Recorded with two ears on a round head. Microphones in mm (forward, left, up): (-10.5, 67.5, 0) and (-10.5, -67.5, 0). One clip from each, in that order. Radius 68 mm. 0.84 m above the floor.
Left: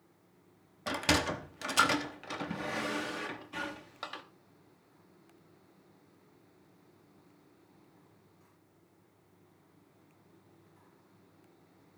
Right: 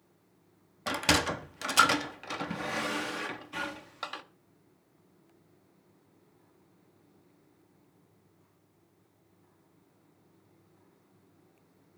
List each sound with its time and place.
0.9 s a sliding door: 20° right (ahead or behind), 1.0 m